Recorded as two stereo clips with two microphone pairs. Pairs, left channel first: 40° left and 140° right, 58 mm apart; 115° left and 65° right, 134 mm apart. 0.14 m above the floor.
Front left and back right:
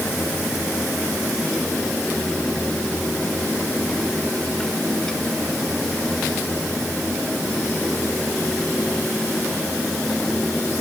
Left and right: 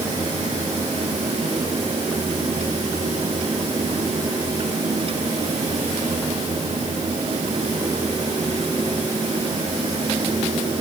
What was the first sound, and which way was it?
Only background noise.